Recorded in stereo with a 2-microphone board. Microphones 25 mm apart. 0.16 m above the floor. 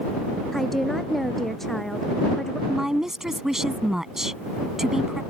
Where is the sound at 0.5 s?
10° left (ahead or behind).